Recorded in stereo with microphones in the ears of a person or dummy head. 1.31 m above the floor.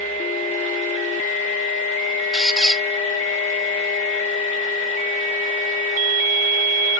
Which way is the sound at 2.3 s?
Centre (ahead or behind).